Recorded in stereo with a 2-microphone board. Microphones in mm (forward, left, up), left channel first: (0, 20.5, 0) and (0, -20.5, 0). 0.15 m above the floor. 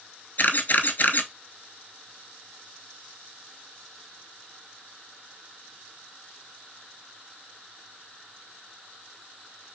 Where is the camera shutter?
50° left (ahead or behind), 0.5 m.